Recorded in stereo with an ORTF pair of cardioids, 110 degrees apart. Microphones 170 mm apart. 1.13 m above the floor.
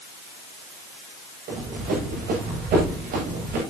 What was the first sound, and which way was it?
Running footsteps, 60° right.